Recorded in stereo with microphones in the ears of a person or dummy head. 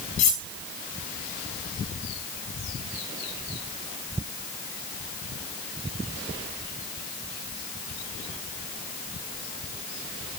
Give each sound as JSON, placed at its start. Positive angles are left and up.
{"t": 0.2, "sound": "cutlery clinking", "side_deg": 45, "distance_m": 1.6}